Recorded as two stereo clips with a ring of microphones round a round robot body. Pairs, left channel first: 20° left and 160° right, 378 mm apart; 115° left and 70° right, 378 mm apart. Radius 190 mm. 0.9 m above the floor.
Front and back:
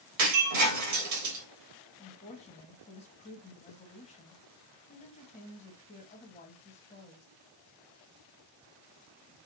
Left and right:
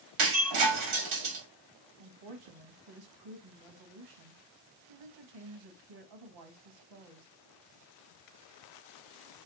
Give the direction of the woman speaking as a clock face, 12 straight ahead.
2 o'clock.